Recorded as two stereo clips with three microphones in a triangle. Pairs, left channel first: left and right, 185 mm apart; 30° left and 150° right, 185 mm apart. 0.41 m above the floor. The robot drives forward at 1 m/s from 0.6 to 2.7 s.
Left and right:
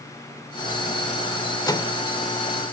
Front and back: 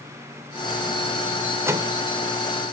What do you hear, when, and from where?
1.7 s a microwave: 145° left, 1.0 m; by 2.0 s 155° left, 1.2 m